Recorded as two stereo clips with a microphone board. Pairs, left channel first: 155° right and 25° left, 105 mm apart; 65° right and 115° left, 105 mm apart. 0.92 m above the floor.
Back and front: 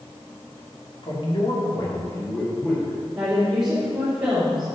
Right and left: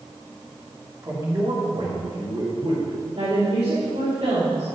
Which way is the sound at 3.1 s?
105° left.